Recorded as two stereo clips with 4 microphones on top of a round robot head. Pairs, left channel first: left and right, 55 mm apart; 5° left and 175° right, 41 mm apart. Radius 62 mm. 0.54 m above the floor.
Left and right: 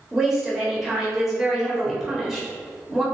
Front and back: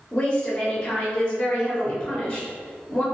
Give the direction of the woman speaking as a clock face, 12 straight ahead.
1 o'clock.